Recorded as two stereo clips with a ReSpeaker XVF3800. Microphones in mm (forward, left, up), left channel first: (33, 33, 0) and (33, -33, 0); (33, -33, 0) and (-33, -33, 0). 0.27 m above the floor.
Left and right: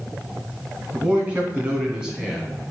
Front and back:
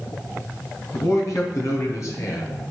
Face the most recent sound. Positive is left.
turn(degrees=-10)